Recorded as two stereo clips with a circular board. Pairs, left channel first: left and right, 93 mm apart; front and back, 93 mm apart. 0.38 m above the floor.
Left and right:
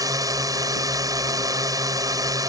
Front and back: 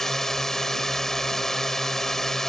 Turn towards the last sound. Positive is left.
turn(degrees=-85)